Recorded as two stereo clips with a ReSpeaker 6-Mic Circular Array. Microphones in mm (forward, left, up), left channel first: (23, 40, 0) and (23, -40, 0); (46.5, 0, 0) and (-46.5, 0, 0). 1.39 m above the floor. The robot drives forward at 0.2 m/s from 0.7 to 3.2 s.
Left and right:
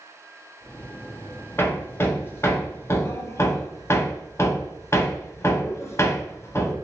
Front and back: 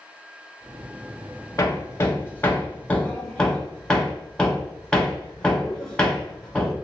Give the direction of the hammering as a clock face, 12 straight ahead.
11 o'clock.